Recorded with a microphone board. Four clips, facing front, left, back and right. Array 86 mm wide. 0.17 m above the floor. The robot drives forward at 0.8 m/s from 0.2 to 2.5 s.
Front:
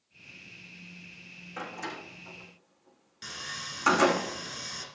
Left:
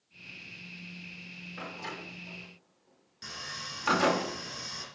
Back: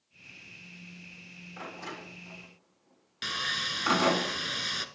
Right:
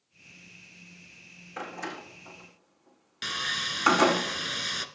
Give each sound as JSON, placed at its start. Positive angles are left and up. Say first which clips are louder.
{"t": 1.6, "sound": "a door slam", "louder": "right 4 dB, front 3 dB", "azimuth_deg": -65, "distance_m": 6.5}
{"t": 3.2, "sound": "sawing", "louder": "right 9 dB, back 7 dB", "azimuth_deg": -130, "distance_m": 1.0}